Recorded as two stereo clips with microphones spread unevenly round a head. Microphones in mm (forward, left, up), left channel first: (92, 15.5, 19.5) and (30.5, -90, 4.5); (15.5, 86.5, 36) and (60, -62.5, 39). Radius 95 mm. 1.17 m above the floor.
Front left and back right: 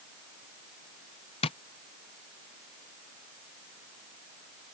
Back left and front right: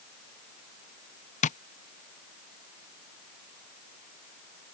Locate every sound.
1.4 s tapping: 100° left